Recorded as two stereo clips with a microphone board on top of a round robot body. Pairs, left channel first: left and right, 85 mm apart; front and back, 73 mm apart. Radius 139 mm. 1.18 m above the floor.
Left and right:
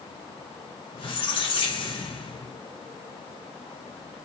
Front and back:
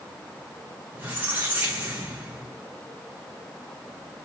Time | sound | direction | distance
0.9 | a squeak | 110° left | 0.5 m